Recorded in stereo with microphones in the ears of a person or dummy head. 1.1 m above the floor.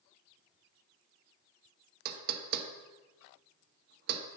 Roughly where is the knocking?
Right.